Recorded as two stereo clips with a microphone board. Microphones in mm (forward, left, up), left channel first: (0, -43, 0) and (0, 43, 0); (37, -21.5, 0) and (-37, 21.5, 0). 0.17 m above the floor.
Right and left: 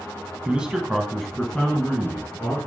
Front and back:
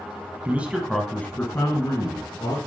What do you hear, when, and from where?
0.5 s a man speaking: 140° left, 1.0 m; by 2.6 s 20° right, 1.8 m